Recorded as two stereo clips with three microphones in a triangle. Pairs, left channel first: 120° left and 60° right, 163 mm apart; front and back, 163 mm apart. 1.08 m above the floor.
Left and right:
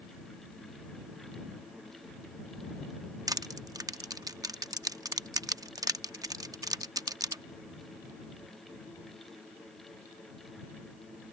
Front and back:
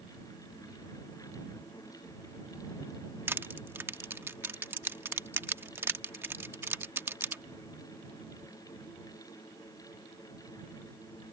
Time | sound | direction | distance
3.3 | crushing | 115° right | ?